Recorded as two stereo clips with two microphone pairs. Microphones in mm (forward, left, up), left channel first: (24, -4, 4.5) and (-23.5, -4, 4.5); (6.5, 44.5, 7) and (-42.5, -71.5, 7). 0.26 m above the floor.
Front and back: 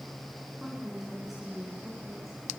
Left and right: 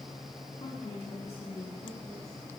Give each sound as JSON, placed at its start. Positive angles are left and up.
{"t": 0.6, "sound": "a woman speaking", "azimuth_deg": 100, "distance_m": 3.5}